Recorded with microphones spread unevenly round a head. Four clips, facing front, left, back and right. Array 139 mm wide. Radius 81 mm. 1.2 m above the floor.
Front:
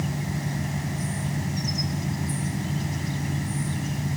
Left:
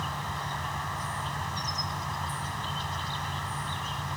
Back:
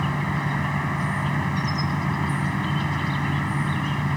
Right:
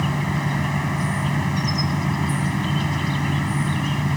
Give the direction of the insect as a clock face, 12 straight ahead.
4 o'clock.